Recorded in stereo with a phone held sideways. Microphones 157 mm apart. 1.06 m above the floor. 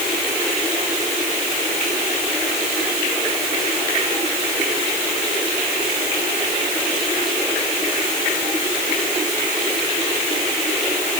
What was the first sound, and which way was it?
Only background noise.